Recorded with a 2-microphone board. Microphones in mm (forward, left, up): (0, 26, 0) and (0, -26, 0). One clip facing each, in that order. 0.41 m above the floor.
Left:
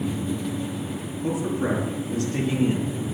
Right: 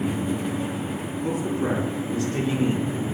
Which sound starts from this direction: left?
A man speaking, at 1.2 s.